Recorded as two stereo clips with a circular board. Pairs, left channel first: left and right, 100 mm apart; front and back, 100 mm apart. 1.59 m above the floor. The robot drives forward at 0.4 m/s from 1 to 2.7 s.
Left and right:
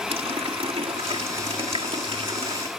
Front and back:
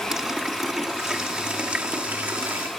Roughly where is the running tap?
Right.